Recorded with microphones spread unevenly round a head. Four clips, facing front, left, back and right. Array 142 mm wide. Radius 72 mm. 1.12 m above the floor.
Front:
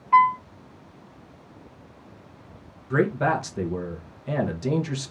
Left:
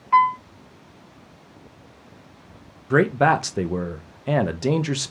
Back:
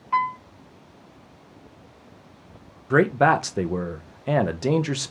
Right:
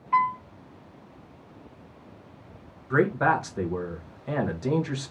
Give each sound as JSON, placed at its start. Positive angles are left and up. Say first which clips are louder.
{"t": 0.1, "sound": "a piano", "louder": "left 6 dB, front 6 dB", "azimuth_deg": 65, "distance_m": 1.3}
{"t": 2.9, "sound": "a man speaking", "louder": "left 5 dB, back 4 dB", "azimuth_deg": 145, "distance_m": 0.9}